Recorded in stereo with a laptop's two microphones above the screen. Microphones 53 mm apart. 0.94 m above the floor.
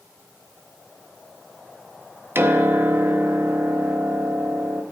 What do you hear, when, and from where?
2.4 s a piano: 50° right (ahead or behind), 0.6 m